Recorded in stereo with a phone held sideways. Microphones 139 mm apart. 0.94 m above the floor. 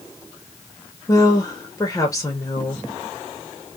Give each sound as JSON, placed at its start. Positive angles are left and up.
{"t": 1.1, "sound": "a woman speaking", "side_deg": 25, "distance_m": 0.7}